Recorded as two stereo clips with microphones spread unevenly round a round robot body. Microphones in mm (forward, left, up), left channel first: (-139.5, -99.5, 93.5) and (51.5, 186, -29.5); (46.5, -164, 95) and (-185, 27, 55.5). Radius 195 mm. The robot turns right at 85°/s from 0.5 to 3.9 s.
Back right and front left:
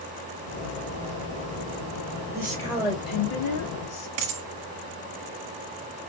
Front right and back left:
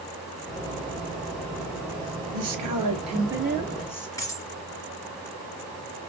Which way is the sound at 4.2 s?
40° left.